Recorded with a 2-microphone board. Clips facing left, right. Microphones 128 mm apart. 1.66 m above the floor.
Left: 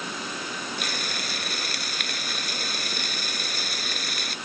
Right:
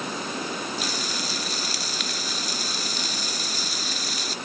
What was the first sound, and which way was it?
Frying, 55° left (ahead or behind).